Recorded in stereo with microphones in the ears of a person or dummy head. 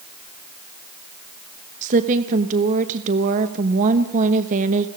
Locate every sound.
1.8 s a woman speaking: 45° right (ahead or behind), 1.2 m